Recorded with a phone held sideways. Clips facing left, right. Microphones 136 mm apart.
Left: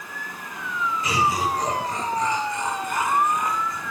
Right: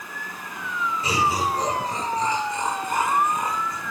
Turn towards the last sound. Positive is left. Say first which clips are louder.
# even
turn(degrees=-30)  # may be behind; listen again after turning